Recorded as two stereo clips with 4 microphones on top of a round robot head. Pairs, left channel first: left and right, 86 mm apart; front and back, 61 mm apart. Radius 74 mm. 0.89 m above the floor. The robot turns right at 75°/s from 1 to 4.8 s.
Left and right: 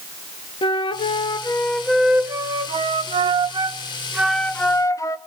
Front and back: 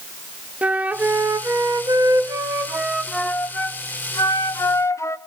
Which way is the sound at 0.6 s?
115° left.